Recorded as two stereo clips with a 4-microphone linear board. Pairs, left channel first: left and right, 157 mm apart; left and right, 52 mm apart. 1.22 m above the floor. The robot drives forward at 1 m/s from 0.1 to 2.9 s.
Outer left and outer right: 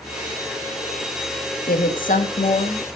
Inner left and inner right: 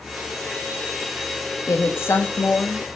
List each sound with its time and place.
1.7 s a woman speaking: 70° left (ahead or behind), 1.6 m; by 2.9 s 40° left (ahead or behind), 2 m